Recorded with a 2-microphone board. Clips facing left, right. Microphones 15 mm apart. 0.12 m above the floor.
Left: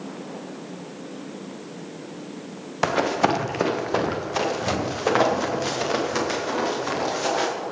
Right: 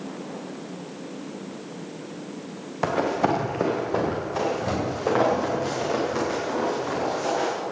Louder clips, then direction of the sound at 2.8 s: Left 2 dB; 40° left (ahead or behind).